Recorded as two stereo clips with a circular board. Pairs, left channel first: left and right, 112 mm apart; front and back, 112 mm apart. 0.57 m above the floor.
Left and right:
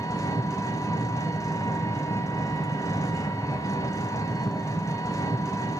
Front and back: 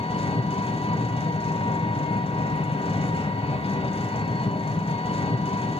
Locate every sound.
0.0 s an engine running: 30° left, 1.2 m